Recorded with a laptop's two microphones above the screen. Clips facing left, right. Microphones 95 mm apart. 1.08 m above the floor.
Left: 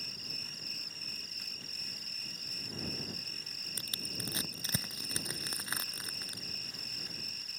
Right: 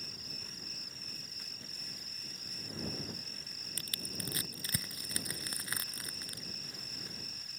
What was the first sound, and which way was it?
An insect, 80° left.